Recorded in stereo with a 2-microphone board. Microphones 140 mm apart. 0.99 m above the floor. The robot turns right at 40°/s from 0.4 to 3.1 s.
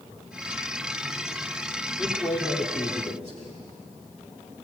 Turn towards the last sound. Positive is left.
turn(degrees=50)